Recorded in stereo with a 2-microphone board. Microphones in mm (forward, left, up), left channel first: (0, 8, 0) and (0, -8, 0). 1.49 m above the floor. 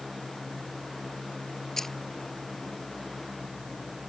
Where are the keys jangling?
20° left (ahead or behind).